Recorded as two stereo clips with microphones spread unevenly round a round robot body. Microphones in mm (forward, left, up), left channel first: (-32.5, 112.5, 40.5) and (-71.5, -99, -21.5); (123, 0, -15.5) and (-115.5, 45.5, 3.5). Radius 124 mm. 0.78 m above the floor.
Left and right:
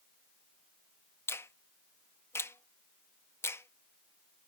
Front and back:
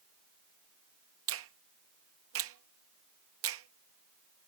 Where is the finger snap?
170° left.